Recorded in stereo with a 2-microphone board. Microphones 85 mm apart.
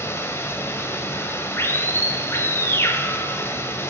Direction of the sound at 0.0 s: 30° left (ahead or behind).